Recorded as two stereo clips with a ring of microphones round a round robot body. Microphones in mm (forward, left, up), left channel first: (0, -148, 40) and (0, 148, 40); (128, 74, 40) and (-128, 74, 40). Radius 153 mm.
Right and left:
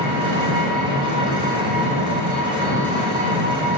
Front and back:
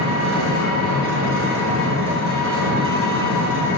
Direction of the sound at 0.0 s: 160° left.